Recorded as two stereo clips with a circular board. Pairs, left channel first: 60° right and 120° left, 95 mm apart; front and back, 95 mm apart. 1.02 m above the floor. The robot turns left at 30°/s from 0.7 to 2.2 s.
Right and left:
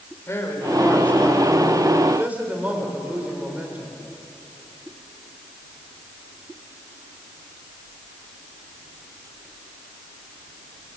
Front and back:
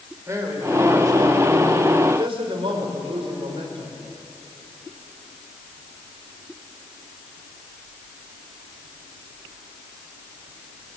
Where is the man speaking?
120° right, 4 m; by 4.0 s 165° right, 4 m.